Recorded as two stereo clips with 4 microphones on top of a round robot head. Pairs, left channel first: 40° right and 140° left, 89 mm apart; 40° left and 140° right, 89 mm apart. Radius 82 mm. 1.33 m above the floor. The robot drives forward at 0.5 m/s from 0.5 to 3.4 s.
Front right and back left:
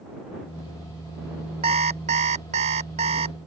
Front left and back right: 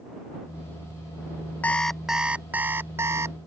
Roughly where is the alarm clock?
Behind left.